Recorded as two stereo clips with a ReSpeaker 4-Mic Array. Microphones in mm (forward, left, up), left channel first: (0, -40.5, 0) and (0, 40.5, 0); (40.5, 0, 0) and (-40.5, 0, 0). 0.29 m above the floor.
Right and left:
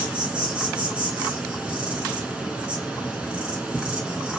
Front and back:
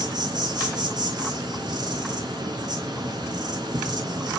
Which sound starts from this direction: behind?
An insect, at 0.0 s.